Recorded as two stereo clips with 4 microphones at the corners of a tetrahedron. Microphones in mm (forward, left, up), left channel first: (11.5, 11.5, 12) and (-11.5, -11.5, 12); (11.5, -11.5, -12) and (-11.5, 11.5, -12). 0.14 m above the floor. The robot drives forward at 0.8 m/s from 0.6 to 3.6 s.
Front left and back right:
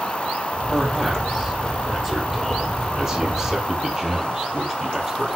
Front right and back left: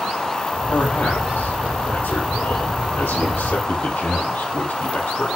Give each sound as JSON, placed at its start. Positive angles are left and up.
{"t": 0.7, "sound": "a man speaking", "azimuth_deg": -35, "distance_m": 5.5}